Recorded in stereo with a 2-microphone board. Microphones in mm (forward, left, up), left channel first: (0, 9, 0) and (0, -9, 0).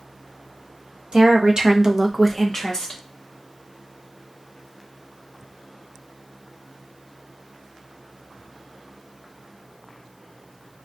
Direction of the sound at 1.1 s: 60° right (ahead or behind).